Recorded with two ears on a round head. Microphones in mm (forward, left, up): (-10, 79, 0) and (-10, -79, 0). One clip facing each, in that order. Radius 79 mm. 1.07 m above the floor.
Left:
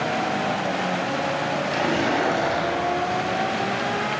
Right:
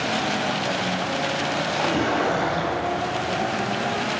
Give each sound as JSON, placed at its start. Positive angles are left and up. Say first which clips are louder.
{"t": 1.7, "sound": "a splash", "louder": "even", "side_deg": 25, "distance_m": 9.5}